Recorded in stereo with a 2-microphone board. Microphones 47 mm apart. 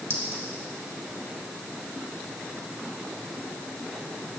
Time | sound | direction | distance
0.1 | a clink | 75° right (ahead or behind) | 3 m